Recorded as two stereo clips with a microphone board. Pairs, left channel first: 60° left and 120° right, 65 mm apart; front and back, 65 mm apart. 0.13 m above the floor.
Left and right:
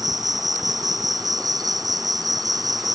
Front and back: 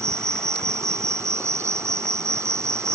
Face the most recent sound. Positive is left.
turn(degrees=-140)